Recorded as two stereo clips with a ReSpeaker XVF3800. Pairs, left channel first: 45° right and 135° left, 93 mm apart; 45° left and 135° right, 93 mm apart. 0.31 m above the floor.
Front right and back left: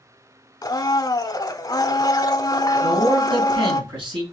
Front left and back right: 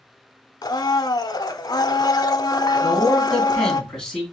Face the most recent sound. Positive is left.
turn(degrees=125)